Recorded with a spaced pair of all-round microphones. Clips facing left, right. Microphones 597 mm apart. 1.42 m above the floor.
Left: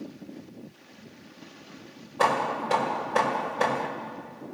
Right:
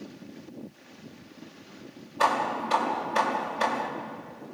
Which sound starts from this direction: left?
Hammering, at 2.2 s.